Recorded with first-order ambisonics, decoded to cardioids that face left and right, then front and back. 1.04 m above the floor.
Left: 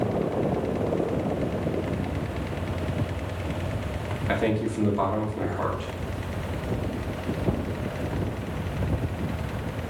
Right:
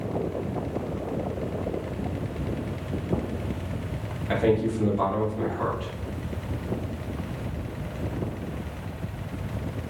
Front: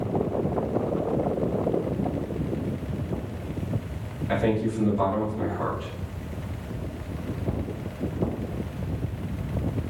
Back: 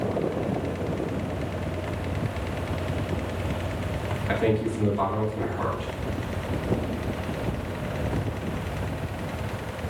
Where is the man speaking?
120° left, 1.5 m.